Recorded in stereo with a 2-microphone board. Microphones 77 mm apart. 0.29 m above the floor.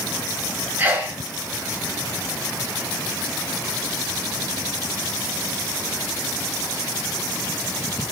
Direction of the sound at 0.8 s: 25° right (ahead or behind).